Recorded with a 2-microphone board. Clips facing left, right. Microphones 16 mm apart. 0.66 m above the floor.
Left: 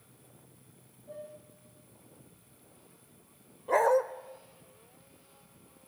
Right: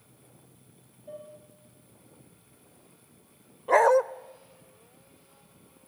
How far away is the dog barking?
About 0.5 m.